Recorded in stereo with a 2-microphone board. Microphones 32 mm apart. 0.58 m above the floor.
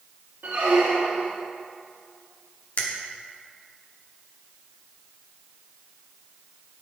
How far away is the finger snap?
About 0.8 m.